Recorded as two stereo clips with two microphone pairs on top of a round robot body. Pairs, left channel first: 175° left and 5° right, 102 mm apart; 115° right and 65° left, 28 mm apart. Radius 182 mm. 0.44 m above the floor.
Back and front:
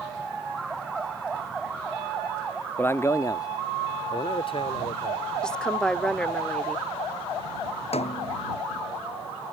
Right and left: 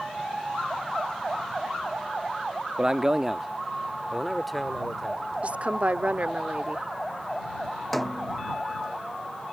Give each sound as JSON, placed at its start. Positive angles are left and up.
{"t": 2.8, "sound": "a man speaking", "azimuth_deg": 125}
{"t": 5.4, "sound": "a woman speaking", "azimuth_deg": 100}
{"t": 7.9, "sound": "a snare drum", "azimuth_deg": 160}